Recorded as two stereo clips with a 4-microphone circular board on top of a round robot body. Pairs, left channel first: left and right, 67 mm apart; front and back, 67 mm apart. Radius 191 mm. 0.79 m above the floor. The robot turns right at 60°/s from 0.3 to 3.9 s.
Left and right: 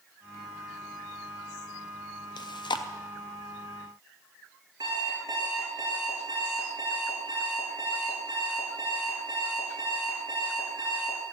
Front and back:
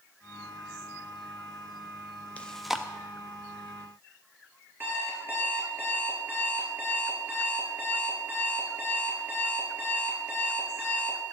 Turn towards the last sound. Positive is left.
turn(degrees=-120)